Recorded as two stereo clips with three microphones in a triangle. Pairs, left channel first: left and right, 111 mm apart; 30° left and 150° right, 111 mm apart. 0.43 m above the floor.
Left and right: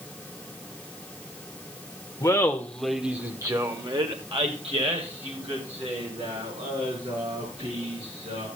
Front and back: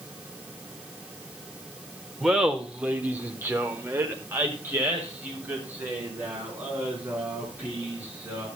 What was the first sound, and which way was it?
Laughter, 125° left.